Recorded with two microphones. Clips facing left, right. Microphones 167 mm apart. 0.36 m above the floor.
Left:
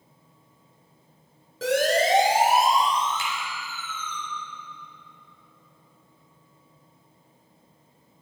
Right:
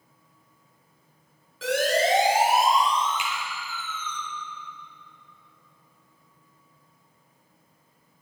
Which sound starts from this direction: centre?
A finger snap, at 3.2 s.